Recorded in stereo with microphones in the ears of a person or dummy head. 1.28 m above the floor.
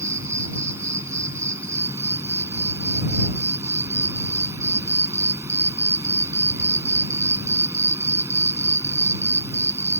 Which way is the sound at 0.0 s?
20° right (ahead or behind).